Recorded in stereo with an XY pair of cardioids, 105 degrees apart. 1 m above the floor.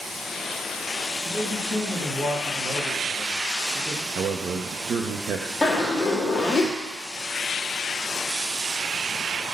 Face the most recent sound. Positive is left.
turn(degrees=25)